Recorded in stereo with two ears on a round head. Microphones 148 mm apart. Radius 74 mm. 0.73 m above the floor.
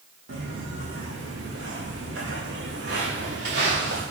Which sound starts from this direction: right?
Footsteps, at 0.3 s.